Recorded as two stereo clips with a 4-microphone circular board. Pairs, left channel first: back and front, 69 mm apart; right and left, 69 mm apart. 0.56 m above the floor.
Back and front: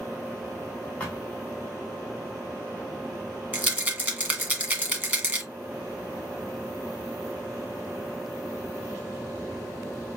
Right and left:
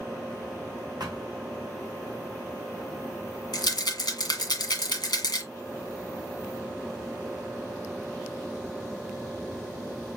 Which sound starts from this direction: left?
A thud, at 1.0 s.